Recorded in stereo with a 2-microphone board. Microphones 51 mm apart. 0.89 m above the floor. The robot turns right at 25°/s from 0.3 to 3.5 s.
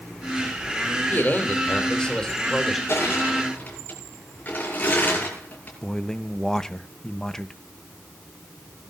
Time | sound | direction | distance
1.1 | a man speaking | 140° left | 3 m
2.9 | crushing | 50° left (ahead or behind) | 7.5 m
5.8 | a man speaking | 10° left (ahead or behind) | 0.8 m